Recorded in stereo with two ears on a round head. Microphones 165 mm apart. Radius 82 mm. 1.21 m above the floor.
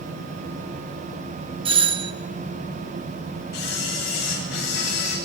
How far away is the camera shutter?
About 8.5 m.